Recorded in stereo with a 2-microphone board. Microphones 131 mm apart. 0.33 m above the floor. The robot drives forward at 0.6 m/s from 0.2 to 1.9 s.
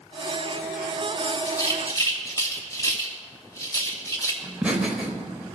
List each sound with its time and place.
1.5 s a rattle: 30° left (ahead or behind), 1.8 m; by 4.3 s 25° left (ahead or behind), 2.0 m
4.4 s laughter: 10° right (ahead or behind), 0.9 m